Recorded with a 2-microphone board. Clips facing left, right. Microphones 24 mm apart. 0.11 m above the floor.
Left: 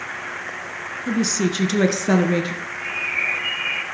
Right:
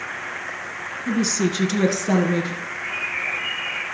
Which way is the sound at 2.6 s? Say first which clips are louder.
Left 1 dB; 30° left (ahead or behind).